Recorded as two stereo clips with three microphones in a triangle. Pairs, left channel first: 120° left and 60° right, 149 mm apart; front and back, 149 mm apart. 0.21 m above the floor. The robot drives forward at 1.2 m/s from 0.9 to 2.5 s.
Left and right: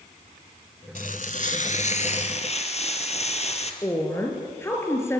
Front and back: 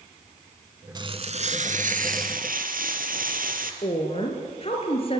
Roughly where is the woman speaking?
Ahead left.